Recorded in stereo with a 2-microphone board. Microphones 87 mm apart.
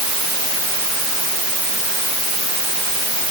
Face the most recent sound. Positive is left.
No sound to turn to.